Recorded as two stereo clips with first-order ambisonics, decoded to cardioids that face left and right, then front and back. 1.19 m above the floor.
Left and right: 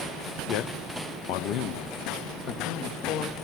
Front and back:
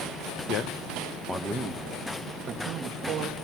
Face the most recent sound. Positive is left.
turn(degrees=130)